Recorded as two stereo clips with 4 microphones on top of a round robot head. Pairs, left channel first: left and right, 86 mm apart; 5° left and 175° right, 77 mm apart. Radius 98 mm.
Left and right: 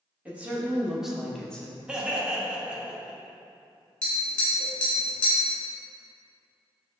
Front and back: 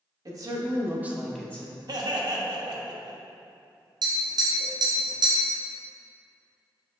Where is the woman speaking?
165° right, 1.2 m; by 1.8 s 25° left, 0.8 m.